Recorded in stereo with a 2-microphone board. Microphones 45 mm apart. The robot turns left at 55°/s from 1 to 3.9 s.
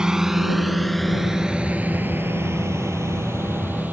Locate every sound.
0.0 s a drone: 15° right (ahead or behind); by 3.9 s 40° right (ahead or behind)